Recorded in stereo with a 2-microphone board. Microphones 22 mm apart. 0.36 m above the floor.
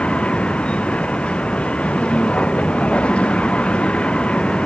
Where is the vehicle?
65° left (ahead or behind).